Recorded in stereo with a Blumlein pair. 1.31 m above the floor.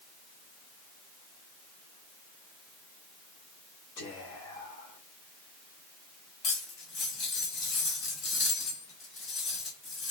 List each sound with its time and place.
4.0 s whispering: 55° left, 1.3 m
6.4 s cutlery clinking: 25° left, 1.2 m